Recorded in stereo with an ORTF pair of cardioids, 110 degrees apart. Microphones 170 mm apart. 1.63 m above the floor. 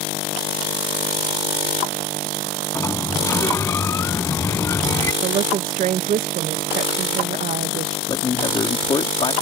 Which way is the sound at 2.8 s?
15° left.